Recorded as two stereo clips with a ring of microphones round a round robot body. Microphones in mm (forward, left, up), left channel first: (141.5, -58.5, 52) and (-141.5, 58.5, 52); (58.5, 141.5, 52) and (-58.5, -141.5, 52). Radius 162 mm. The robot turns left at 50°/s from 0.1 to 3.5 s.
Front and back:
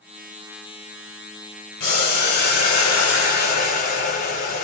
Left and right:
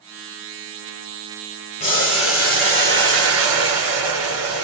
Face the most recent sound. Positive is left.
turn(degrees=-85)